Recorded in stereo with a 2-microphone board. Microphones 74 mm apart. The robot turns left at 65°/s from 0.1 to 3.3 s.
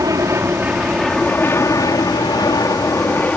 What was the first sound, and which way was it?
An aircraft, 50° right (ahead or behind).